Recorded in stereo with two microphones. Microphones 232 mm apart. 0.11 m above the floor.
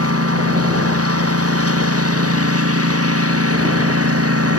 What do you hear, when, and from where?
0.0 s a lawn mower: 85° right